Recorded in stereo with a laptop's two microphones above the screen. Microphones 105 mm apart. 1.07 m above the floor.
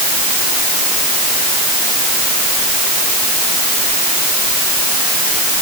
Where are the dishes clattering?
I don't hear dishes clattering.